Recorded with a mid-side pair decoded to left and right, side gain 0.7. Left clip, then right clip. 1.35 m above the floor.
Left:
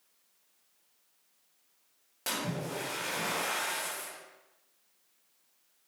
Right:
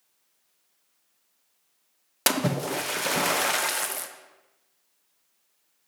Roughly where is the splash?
Ahead right.